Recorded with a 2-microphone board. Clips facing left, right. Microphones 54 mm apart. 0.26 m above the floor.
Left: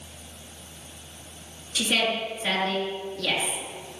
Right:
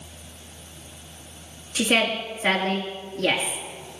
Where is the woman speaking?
55° right (ahead or behind), 4 m.